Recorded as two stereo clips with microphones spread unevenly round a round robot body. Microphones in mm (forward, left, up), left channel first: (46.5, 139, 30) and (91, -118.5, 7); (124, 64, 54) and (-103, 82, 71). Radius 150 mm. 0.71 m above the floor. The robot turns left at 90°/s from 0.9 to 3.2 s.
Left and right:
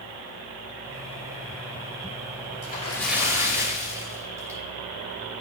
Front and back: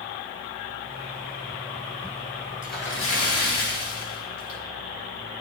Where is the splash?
50° left, 2.5 m; by 4.6 s straight ahead, 2.5 m.